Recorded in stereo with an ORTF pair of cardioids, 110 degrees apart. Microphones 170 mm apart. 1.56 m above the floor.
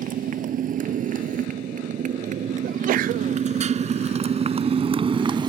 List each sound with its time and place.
0.0 s a motorcycle: 55° right; by 5.5 s 30° right
2.6 s a sneeze: 60° right